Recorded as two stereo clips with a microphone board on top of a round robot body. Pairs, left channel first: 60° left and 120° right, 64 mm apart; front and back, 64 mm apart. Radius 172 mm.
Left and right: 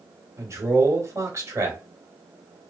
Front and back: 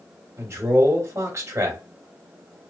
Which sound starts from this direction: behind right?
A man speaking, at 0.4 s.